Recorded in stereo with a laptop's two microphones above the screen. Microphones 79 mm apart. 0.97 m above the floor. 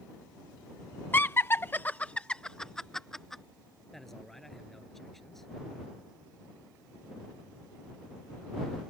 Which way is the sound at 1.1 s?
25° left (ahead or behind).